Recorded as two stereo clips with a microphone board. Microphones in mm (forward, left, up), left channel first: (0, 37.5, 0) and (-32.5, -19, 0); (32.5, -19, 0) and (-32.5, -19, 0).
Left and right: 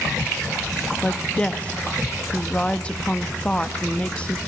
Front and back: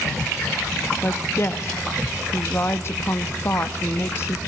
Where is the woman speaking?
Straight ahead, 0.8 m.